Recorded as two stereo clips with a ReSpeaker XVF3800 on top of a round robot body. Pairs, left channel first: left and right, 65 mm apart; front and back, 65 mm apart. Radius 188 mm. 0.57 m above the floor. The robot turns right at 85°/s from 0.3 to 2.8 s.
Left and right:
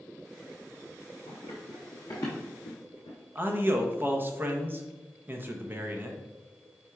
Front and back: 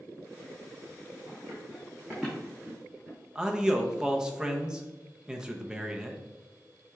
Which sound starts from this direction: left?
Running footsteps, at 1.3 s.